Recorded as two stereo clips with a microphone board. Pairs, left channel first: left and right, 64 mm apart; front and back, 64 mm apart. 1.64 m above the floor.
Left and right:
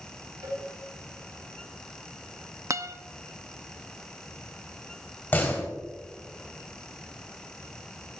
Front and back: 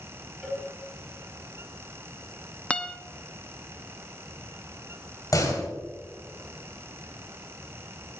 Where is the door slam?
30° left, 4 m.